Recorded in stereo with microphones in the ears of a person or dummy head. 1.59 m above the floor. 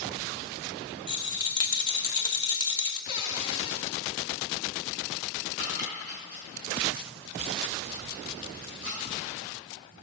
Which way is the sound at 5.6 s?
60° left (ahead or behind).